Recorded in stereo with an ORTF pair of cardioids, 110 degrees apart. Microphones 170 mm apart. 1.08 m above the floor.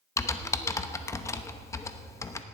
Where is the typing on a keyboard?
15° left, 0.9 m.